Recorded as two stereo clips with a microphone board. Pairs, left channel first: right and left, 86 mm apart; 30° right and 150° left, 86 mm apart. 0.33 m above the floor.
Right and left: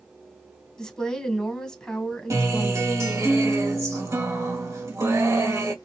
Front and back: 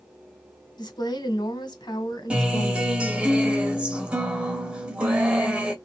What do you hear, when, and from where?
0.8 s a woman speaking: 10° right, 1.9 m
2.3 s a guitar: 85° left, 1.6 m